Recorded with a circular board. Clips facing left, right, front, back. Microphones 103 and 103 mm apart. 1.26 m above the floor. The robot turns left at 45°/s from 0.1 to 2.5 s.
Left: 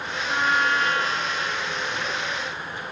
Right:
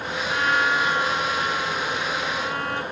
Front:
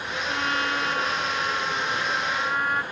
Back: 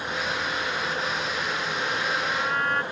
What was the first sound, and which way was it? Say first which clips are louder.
A trumpet: even, front 6 dB; 15° left.